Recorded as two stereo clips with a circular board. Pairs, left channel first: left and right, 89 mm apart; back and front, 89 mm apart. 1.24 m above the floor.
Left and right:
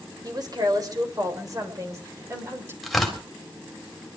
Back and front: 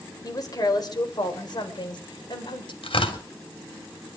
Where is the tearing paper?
Straight behind, 3.5 m.